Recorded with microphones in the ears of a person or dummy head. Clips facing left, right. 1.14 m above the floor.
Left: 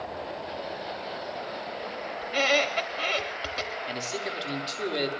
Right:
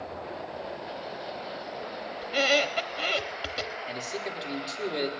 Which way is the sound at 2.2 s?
10° right (ahead or behind).